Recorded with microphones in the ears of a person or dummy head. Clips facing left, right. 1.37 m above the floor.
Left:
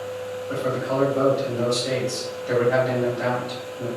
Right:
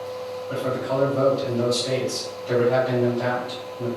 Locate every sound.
0.5 s a man speaking: 15° left (ahead or behind), 2.0 m